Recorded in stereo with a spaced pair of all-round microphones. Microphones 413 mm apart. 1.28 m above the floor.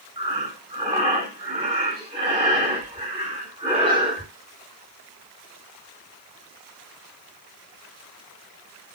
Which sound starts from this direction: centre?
Breathing, at 0.2 s.